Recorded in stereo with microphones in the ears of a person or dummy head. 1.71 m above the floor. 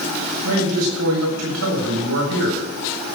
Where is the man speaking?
80° right, 7.5 m.